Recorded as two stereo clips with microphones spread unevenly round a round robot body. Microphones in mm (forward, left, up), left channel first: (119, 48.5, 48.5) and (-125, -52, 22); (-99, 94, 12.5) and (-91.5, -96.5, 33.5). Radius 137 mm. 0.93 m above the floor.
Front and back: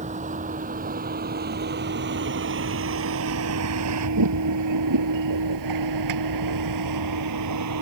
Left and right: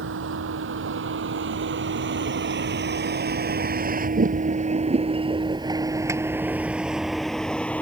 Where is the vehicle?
95° right; by 7.8 s 175° left.